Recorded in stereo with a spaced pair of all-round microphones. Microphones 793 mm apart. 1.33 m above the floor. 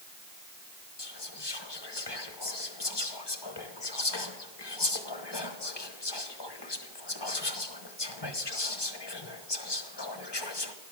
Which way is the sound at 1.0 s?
30° left (ahead or behind).